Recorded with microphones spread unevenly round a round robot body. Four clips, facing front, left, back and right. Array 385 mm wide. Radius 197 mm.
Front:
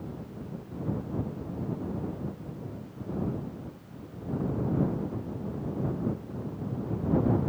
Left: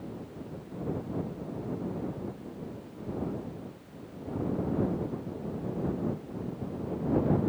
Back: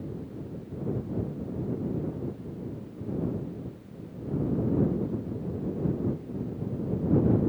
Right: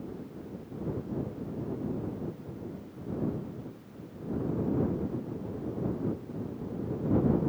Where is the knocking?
I don't hear knocking.